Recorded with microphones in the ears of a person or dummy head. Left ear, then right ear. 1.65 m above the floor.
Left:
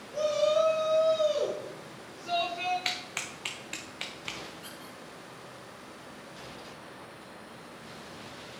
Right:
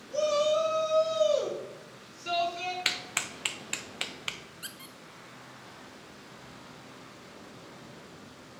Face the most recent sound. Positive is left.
turn(degrees=-20)  # may be behind; listen again after turning